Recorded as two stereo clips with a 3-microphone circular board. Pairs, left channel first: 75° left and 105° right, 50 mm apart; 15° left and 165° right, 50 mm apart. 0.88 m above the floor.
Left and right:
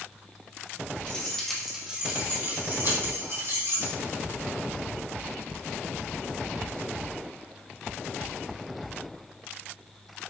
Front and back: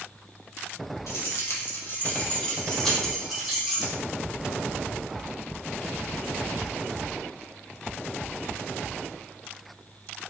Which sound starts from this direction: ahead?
Keys jangling, at 1.1 s.